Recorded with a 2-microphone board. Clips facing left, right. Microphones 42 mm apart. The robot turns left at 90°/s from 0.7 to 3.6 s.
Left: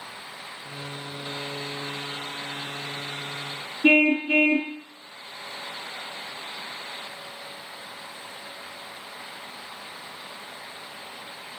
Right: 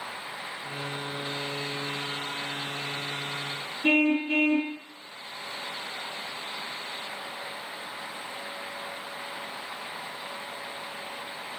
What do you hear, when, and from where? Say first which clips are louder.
3.8 s a car horn: left 4 dB; 40° left (ahead or behind), 3 m